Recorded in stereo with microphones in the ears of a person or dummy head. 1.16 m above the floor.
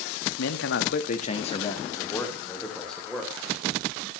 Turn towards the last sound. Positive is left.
turn(degrees=0)  # may be behind; listen again after turning